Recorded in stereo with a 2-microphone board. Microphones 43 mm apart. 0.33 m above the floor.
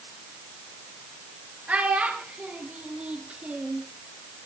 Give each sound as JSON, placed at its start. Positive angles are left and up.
{"t": 1.7, "sound": "a child speaking", "side_deg": -30, "distance_m": 4.0}